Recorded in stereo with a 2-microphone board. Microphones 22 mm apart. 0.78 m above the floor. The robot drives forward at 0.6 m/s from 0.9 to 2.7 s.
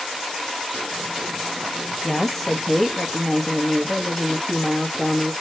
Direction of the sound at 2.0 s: 15° left (ahead or behind).